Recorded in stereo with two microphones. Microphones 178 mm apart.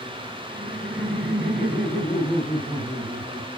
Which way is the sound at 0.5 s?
55° right (ahead or behind).